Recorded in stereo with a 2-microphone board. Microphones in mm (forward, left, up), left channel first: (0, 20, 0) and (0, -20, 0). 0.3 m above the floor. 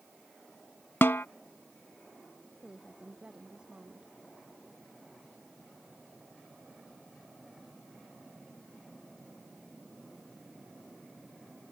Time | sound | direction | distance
1.0 | a snare drum | 80° left | ?
2.6 | a woman speaking | 25° right (ahead or behind) | ?